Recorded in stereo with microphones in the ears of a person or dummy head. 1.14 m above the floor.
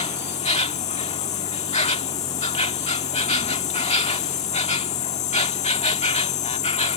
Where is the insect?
35° left (ahead or behind).